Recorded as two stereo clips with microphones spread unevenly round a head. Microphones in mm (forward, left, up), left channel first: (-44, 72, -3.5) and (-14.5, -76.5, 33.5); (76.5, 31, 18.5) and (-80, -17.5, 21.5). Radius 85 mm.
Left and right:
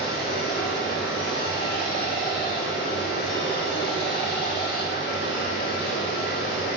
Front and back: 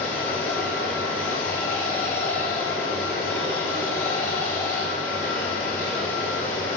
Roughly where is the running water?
Left.